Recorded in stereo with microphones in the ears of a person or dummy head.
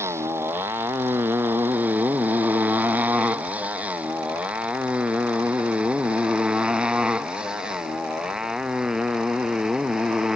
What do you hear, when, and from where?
0.0 s a motorcycle: 10° right (ahead or behind); by 10.4 s centre (ahead or behind)